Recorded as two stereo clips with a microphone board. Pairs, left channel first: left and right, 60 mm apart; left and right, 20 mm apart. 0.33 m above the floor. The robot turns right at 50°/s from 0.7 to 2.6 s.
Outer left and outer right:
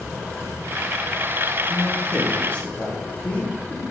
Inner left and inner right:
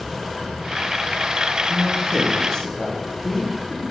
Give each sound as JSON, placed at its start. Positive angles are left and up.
{"t": 1.7, "sound": "a man speaking", "side_deg": 10, "distance_m": 0.9}